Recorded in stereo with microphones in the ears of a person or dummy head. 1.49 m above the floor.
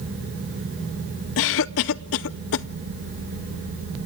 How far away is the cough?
About 0.6 m.